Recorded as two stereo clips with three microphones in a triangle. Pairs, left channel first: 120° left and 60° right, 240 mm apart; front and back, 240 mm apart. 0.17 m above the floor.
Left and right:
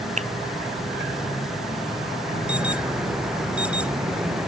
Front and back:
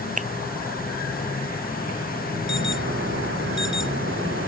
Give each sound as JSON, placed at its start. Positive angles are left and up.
{"t": 0.2, "sound": "a finger snap", "azimuth_deg": -120}
{"t": 2.5, "sound": "an alarm", "azimuth_deg": -145}